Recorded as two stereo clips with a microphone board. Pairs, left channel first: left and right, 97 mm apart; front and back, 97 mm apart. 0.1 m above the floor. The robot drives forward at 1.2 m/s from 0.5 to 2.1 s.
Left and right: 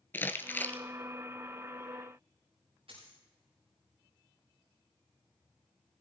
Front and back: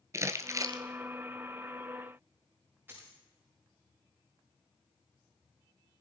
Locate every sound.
0.1 s crumpling: 145° left, 0.9 m; by 0.8 s 160° left, 1.2 m
2.9 s a dropped coin: 110° right, 7 m